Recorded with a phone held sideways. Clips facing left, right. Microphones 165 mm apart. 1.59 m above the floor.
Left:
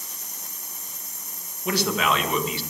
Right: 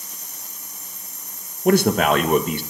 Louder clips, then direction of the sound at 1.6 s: Right 8 dB; 50° right (ahead or behind).